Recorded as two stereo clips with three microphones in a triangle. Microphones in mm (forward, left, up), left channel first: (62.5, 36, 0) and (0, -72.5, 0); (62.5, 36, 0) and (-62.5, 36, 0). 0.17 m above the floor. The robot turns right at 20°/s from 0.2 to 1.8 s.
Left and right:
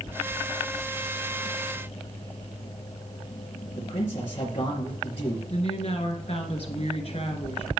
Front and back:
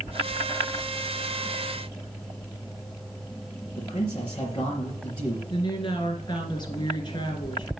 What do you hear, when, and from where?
3.8 s a man speaking: 40° left, 2.5 m
5.5 s a woman speaking: 45° left, 2 m